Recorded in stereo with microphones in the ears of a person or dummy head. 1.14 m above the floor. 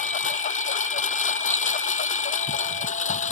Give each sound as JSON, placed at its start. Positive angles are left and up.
{"t": 0.0, "sound": "a lawn mower", "side_deg": 45}